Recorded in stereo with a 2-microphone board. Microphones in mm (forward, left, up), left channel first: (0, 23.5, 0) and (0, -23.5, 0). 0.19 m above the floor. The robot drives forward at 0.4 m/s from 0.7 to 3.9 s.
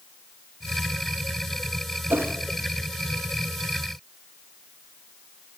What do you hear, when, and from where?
2.1 s a whoosh: 60° right (ahead or behind), 0.5 m